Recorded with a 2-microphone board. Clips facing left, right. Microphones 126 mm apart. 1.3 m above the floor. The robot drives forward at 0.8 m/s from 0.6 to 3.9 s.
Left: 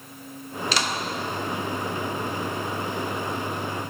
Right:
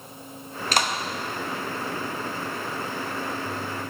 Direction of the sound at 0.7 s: 50° right (ahead or behind).